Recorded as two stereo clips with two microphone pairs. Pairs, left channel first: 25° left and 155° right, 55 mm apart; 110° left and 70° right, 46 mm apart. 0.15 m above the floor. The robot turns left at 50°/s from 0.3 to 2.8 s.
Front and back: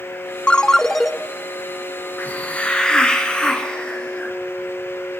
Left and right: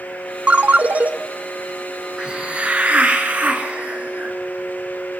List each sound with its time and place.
0.5 s a ringtone: 35° right, 0.5 m; by 1.1 s 70° right, 0.5 m
2.2 s a hiss: 10° right, 1.9 m; by 4.3 s 40° right, 1.9 m